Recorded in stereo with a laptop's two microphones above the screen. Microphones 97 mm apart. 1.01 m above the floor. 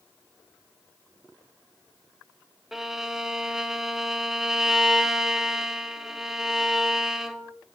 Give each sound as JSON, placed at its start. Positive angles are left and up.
{"t": 2.7, "sound": "a violin", "side_deg": -5, "distance_m": 1.7}